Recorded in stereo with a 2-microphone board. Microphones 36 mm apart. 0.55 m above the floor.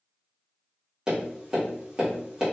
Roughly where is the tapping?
Centre.